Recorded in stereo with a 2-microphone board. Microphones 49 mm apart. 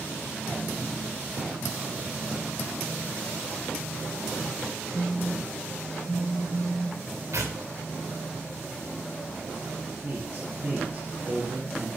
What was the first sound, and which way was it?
A phone buzzing, 30° left (ahead or behind).